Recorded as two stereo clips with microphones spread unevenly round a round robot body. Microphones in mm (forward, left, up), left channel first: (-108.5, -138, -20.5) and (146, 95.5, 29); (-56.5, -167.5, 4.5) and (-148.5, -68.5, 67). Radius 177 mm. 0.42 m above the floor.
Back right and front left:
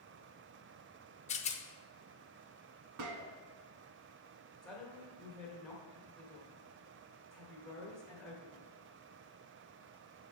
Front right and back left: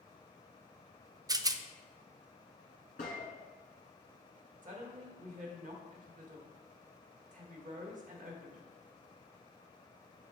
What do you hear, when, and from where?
1.3 s a rattle: 135° right, 0.5 m
3.0 s a gunshot: 5° left, 0.9 m
4.6 s a woman speaking: 145° left, 1.5 m